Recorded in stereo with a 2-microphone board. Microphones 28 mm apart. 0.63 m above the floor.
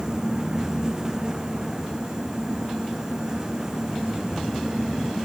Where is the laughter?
No laughter in this recording.